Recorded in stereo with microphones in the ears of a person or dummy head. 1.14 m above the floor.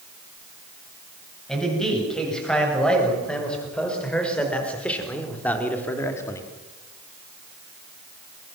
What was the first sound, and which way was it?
A man speaking, centre (ahead or behind).